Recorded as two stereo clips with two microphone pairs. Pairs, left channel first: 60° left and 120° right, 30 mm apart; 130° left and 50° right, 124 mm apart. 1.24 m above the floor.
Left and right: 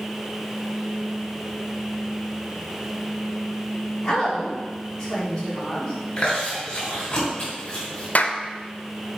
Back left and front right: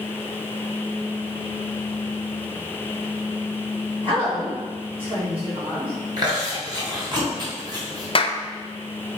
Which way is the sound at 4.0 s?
10° right.